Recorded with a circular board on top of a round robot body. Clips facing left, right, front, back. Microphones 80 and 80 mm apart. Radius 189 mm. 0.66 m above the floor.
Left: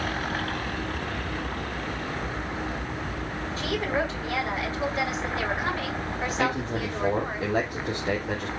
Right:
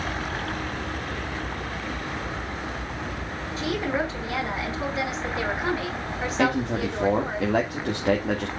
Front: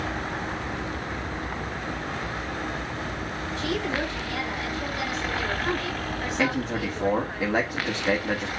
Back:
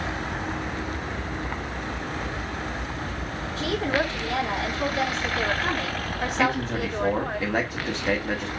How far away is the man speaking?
About 2.5 m.